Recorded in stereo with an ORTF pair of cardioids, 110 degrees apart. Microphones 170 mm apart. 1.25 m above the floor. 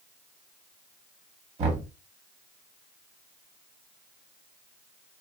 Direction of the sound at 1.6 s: 40° right.